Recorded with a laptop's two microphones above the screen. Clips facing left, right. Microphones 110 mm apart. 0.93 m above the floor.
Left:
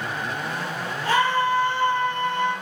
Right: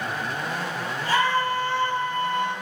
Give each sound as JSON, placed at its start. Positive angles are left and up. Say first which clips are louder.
{"t": 1.1, "sound": "a scream", "louder": "left 2 dB", "side_deg": 80, "distance_m": 2.5}